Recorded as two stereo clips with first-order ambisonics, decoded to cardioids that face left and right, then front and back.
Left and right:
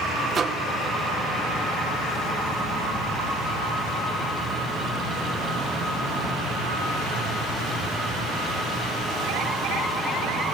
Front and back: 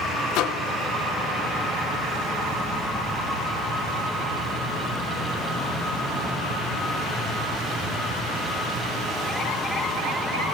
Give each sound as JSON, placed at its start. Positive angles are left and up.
{"t": 0.3, "sound": "a microwave", "azimuth_deg": -25, "distance_m": 0.9}